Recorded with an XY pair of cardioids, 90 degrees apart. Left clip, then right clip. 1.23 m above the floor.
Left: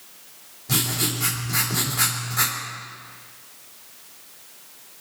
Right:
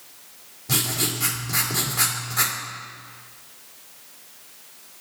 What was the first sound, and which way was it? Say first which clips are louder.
Writing: even; 20° right.